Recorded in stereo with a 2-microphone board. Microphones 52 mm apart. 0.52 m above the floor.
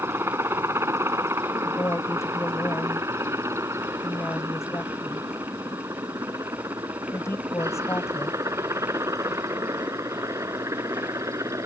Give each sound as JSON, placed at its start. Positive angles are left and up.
{"t": 0.0, "sound": "a helicopter", "side_deg": -55}
{"t": 1.6, "sound": "a woman speaking", "side_deg": 65}